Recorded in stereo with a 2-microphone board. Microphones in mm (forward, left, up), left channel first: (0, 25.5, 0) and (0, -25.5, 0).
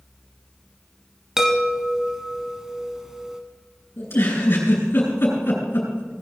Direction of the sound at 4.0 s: 50° left (ahead or behind).